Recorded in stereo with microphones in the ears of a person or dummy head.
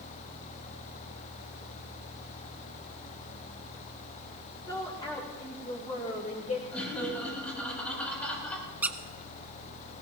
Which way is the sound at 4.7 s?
10° left (ahead or behind).